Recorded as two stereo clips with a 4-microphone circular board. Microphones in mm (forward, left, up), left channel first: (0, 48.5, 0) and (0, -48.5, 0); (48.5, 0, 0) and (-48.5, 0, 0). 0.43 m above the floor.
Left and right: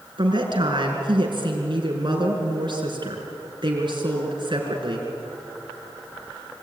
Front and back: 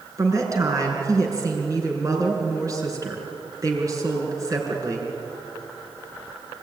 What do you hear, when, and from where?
0.2 s a woman speaking: 125° right, 5.5 m